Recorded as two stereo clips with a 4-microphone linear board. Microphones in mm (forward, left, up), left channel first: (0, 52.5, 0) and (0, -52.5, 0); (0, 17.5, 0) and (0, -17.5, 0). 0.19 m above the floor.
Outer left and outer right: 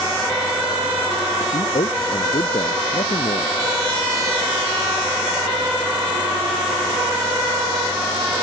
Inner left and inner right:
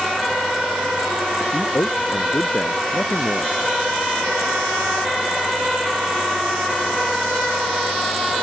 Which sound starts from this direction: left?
A man speaking, at 1.4 s.